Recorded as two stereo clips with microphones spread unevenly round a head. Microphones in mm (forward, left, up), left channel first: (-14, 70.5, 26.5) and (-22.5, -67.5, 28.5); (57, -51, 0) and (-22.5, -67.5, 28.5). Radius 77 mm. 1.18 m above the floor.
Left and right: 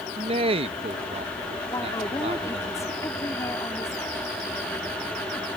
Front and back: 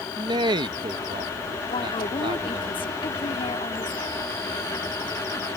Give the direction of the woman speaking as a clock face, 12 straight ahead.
11 o'clock.